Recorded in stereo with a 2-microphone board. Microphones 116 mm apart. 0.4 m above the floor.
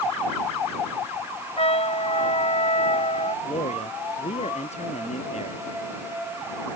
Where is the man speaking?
70° left (ahead or behind).